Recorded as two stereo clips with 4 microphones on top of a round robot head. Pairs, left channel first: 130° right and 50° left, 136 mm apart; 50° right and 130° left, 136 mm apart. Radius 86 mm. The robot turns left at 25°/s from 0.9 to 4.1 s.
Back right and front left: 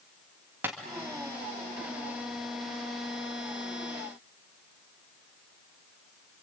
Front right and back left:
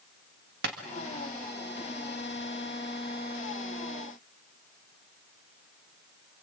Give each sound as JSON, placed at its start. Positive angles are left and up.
{"t": 0.6, "sound": "tapping", "azimuth_deg": 125, "distance_m": 1.8}